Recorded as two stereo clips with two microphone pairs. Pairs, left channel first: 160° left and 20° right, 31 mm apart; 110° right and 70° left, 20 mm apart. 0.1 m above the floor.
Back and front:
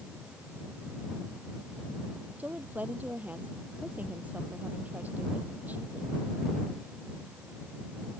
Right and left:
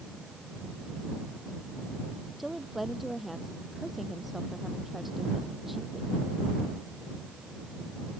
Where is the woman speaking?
10° right.